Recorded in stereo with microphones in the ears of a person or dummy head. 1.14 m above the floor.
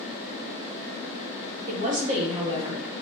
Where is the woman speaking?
40° right (ahead or behind), 0.9 m; by 2.9 s 15° right (ahead or behind), 1.2 m.